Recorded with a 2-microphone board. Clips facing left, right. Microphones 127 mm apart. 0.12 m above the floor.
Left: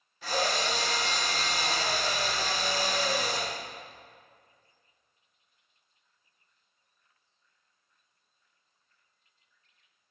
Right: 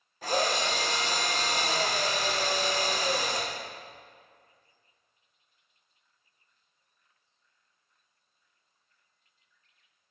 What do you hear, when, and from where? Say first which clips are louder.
0.2 s a drill: right 2 dB; 45° right (ahead or behind), 4 m